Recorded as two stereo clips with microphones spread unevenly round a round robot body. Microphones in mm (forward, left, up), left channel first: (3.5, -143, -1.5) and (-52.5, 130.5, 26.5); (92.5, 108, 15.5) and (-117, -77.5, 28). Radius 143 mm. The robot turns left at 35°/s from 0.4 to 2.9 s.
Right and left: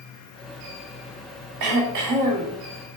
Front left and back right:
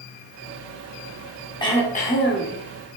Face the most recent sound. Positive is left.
turn(degrees=70)